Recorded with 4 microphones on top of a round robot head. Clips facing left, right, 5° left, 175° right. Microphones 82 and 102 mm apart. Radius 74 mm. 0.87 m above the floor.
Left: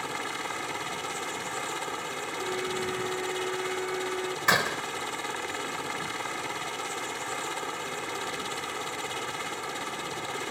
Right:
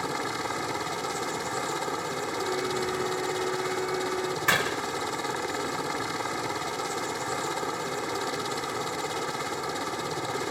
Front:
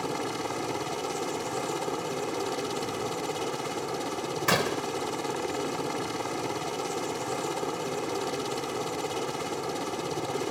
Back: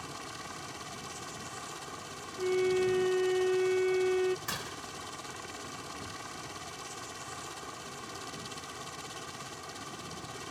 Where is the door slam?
15° left.